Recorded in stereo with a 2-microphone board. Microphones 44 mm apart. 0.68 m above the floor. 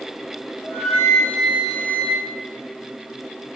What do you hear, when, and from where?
0.6 s a flute: 75° left (ahead or behind), 5.5 m